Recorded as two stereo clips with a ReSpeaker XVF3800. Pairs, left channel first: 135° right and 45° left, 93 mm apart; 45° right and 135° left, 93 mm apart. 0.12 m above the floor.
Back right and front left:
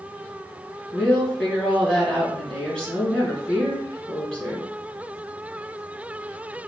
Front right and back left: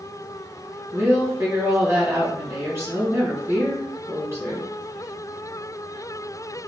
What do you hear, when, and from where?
0.9 s a woman speaking: 155° left, 1.7 m